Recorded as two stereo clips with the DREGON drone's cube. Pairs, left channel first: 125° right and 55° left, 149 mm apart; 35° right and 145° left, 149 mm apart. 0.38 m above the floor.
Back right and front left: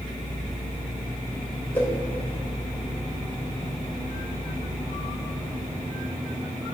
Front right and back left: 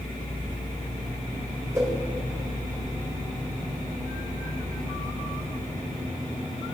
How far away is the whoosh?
About 1.5 m.